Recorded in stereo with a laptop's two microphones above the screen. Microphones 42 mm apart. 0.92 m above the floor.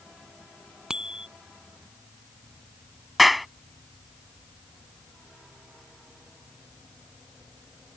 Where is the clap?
Centre (ahead or behind).